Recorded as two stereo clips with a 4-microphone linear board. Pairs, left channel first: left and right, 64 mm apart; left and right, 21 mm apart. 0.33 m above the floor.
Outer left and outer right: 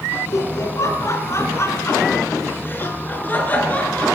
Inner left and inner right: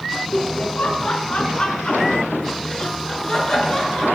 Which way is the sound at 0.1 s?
60° left (ahead or behind).